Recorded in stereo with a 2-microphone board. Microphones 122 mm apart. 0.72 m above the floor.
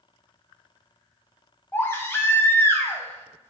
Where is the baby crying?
20° left (ahead or behind), 0.5 m.